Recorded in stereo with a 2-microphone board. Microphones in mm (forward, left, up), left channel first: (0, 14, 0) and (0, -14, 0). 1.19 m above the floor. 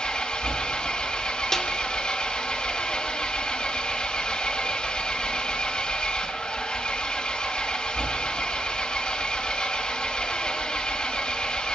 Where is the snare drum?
15° left (ahead or behind), 2 m.